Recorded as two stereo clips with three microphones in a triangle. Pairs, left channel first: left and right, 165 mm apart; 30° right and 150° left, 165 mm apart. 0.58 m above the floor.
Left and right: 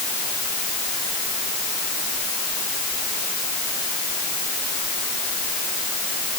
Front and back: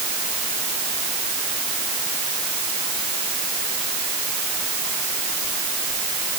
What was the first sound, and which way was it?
Only background noise.